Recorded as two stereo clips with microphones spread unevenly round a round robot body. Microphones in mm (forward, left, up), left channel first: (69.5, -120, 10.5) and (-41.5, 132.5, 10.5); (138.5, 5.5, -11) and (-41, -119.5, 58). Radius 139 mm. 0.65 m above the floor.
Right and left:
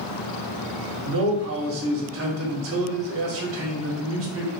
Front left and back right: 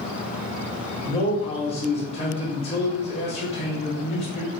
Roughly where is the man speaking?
Left.